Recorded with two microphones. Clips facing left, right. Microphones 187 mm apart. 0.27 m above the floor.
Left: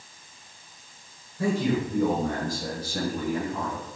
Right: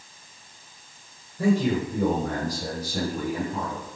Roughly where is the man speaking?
Centre.